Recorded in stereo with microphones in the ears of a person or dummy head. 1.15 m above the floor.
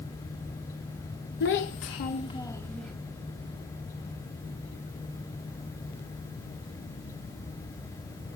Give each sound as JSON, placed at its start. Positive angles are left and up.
{"t": 1.4, "sound": "a child speaking", "side_deg": 55, "distance_m": 1.0}